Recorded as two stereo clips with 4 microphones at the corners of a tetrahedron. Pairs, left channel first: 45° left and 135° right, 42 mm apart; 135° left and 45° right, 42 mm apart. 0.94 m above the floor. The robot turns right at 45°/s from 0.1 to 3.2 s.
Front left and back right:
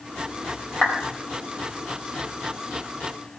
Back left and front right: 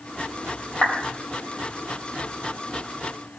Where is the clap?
85° left, 4 m; by 0.9 s 90° left, 4 m.